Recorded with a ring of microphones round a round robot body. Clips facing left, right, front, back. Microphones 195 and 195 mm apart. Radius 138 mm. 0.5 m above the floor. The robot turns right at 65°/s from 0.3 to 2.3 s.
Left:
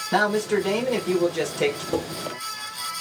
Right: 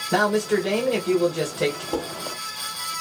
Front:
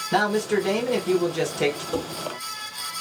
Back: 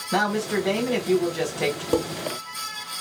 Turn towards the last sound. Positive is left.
turn(degrees=-165)